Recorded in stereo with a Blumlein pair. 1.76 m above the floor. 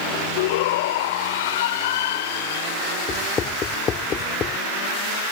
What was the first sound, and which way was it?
A shout, 50° left.